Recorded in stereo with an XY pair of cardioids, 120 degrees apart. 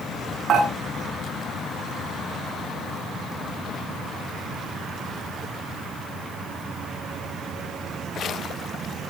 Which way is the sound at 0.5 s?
50° right.